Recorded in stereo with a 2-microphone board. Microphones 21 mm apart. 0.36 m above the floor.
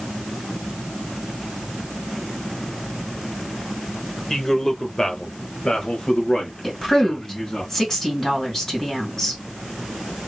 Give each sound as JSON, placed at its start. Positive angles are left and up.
{"t": 4.3, "sound": "a man speaking", "side_deg": 15, "distance_m": 1.1}
{"t": 6.6, "sound": "a woman speaking", "side_deg": 20, "distance_m": 2.5}